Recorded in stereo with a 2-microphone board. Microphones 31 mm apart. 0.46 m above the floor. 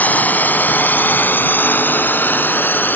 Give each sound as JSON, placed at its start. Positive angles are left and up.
{"t": 0.0, "sound": "a drone", "side_deg": 55}